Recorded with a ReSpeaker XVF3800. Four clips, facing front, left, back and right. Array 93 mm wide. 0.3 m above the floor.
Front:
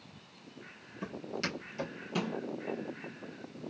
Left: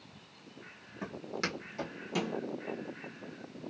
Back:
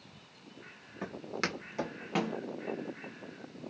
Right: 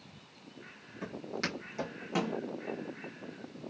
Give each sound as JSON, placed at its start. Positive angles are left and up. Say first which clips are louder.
{"t": 1.0, "sound": "footsteps", "louder": "even, back 1 dB", "azimuth_deg": 165, "distance_m": 1.7}